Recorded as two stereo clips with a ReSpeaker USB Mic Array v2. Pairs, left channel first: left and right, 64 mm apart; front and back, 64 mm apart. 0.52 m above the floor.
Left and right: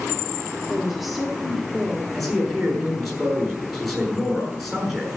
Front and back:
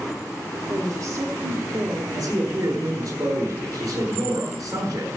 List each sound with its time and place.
0.7 s a woman speaking: 175° right, 2 m
2.1 s a man speaking: straight behind, 7 m